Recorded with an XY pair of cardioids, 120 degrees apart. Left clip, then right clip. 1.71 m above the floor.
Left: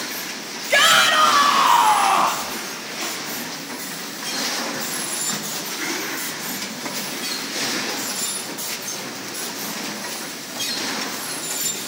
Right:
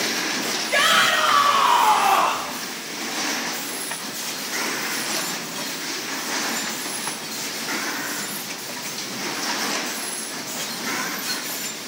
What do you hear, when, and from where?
0.7 s a shout: 40° left, 1.2 m; by 2.5 s 15° left, 2 m